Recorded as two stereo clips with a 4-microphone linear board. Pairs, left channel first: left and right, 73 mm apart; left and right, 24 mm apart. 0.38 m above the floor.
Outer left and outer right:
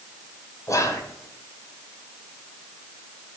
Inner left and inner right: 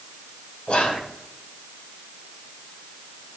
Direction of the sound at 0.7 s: 45° left (ahead or behind).